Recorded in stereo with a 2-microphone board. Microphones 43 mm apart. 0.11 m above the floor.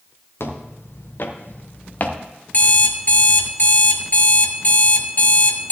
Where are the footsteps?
65° left (ahead or behind), 1.9 m; by 2.2 s 35° left (ahead or behind), 1.4 m.